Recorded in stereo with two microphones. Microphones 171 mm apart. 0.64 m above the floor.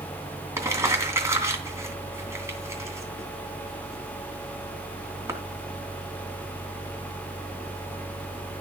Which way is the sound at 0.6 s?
15° right (ahead or behind).